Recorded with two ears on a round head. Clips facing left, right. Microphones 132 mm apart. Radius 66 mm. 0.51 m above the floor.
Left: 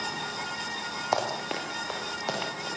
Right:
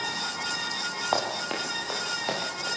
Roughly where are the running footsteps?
Centre.